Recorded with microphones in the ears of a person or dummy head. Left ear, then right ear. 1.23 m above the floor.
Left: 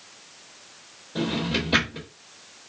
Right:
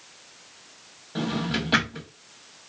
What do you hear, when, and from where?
1.1 s a drawer: 55° right (ahead or behind), 1.2 m